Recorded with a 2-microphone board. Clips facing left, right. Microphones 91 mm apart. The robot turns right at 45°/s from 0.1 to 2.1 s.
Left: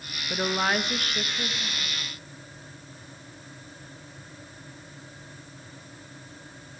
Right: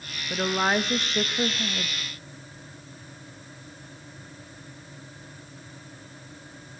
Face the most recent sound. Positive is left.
turn(degrees=-105)